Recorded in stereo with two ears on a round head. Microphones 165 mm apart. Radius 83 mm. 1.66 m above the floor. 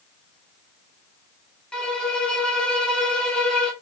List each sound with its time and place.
1.7 s a violin: 5° left (ahead or behind), 0.9 m